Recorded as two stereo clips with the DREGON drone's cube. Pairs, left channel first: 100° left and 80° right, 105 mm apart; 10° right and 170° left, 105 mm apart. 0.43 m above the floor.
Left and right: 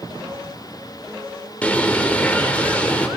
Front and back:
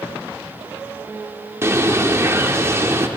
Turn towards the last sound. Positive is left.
turn(degrees=155)